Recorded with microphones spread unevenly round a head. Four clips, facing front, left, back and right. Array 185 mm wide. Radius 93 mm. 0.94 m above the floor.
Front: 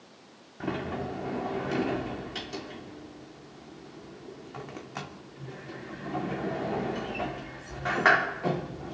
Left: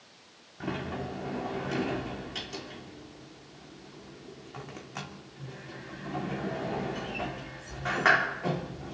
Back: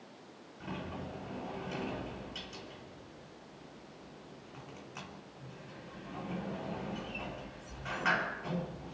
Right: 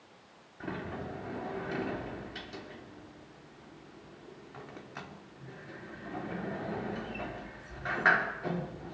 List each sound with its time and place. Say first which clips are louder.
0.6 s a sliding door: left 4 dB, front 10 dB; 10° left, 3 m